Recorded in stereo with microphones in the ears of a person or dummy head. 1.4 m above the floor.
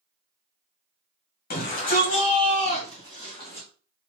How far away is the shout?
About 1.5 m.